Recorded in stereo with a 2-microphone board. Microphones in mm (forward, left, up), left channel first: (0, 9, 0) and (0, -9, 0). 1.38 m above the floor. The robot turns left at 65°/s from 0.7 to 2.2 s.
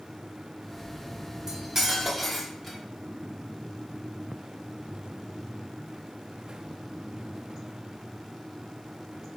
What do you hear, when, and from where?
1.5 s cutlery clinking: 135° right, 0.6 m; by 2.8 s 175° left, 0.6 m